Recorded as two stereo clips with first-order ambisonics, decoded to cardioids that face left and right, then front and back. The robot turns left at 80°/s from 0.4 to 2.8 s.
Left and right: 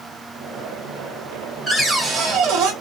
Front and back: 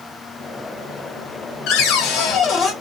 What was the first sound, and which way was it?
A cupboard door, 5° left.